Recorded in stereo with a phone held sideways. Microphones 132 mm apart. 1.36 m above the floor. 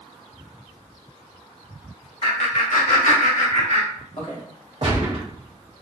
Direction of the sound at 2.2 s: 60° left (ahead or behind).